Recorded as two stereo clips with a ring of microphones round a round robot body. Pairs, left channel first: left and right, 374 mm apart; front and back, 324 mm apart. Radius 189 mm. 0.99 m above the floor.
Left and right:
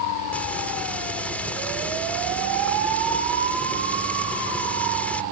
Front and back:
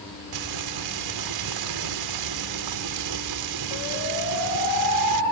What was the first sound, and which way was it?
Frying, 175° left.